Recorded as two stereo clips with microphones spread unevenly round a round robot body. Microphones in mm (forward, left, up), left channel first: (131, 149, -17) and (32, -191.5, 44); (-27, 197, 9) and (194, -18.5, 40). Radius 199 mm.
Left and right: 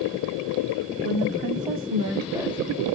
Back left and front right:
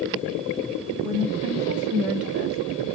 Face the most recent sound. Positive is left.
turn(degrees=10)